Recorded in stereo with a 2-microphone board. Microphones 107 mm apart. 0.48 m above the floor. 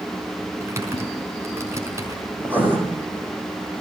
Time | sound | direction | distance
0.6 | typing on a keyboard | 25° right (ahead or behind) | 5 m
2.4 | writing | 15° right (ahead or behind) | 6.5 m